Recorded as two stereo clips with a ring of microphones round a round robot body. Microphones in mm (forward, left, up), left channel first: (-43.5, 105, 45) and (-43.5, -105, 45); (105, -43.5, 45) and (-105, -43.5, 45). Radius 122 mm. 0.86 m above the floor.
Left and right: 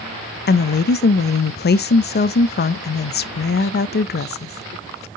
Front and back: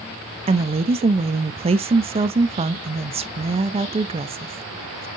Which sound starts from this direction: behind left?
A woman speaking, at 0.5 s.